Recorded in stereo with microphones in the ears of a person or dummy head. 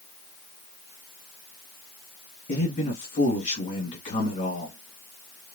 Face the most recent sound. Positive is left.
turn(degrees=40)  # may be behind; listen again after turning